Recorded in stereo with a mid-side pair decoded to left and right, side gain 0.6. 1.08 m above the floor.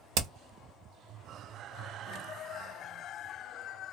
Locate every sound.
0.1 s hammering: 65° right, 0.7 m